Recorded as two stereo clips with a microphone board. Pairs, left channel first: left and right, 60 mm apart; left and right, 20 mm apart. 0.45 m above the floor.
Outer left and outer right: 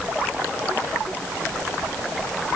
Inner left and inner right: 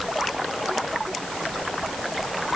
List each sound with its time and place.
Only background noise.